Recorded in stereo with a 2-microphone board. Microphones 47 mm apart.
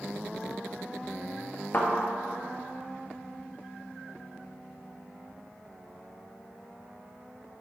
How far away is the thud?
About 1.6 m.